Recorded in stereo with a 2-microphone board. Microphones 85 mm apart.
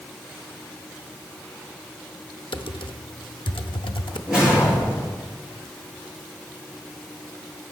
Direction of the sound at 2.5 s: 80° left.